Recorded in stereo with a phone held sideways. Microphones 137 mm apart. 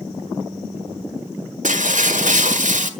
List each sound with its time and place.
1.6 s breaking glass: 70° right (ahead or behind), 1.5 m